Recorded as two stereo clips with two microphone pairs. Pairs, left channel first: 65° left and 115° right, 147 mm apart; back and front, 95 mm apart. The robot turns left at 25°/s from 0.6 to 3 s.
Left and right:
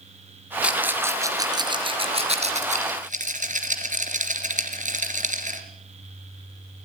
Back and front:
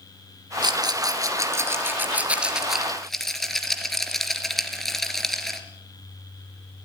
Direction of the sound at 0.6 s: 35° right.